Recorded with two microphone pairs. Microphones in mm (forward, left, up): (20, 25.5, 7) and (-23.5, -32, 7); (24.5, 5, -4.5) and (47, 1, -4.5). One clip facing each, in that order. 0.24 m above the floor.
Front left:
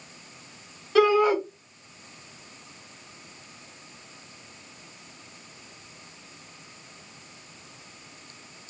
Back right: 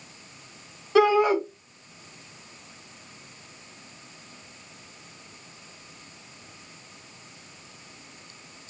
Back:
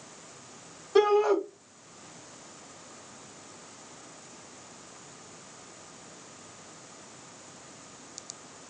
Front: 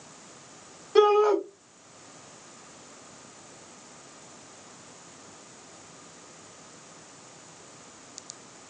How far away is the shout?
About 1.5 m.